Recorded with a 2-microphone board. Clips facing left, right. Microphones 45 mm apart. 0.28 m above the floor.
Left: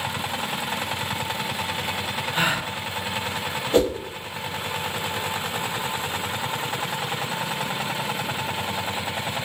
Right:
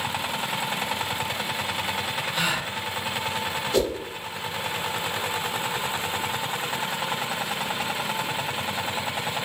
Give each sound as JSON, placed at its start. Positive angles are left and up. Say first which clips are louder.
{"t": 2.3, "sound": "a gasp", "louder": "left 4 dB", "side_deg": 35, "distance_m": 0.7}
{"t": 3.7, "sound": "a whoosh", "louder": "left 4 dB", "side_deg": 35, "distance_m": 0.7}